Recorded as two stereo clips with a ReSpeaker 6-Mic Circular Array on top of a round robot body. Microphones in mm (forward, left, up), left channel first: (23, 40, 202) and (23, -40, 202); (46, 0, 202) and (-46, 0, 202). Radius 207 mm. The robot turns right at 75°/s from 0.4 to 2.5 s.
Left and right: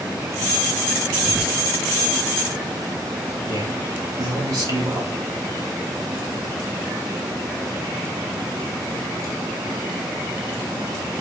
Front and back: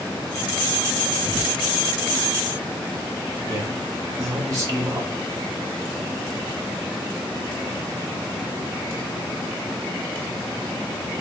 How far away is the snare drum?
No snare drum in this recording.